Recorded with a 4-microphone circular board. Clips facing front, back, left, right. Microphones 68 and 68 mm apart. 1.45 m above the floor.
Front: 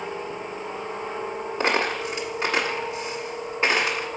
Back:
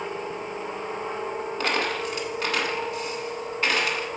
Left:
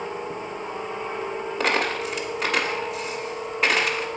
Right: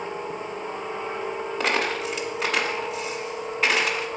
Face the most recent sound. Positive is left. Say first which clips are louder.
# front 3 dB, left 1 dB
turn(degrees=5)